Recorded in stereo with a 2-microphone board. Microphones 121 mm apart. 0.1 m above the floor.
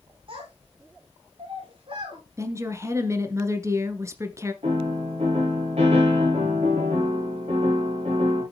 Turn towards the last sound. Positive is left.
turn(degrees=-65)  # may be behind; listen again after turning